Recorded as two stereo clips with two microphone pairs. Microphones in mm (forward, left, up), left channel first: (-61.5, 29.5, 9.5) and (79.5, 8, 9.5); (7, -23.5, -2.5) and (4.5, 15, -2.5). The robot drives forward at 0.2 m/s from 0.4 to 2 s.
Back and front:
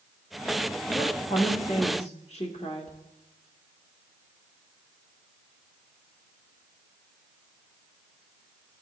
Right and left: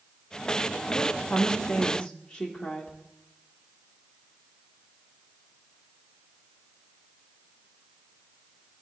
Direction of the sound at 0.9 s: 145° right.